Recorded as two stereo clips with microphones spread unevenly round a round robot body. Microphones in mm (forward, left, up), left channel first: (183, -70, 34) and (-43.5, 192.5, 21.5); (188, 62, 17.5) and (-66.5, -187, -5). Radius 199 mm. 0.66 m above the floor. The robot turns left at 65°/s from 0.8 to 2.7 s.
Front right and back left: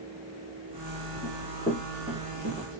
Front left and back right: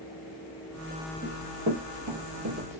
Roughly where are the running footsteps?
Right.